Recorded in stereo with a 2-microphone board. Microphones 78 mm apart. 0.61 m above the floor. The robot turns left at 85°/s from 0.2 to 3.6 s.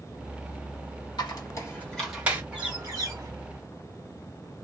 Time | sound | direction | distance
1.2 | a squeak | 70° left (ahead or behind) | 1.2 m
2.5 | a bird | 10° right | 1.7 m